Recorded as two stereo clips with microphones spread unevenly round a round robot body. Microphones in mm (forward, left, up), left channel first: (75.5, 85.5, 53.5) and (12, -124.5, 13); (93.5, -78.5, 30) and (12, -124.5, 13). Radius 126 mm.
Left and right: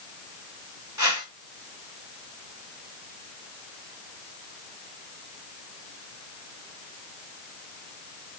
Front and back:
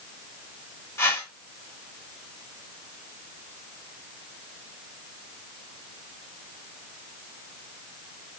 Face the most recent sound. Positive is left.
turn(degrees=-40)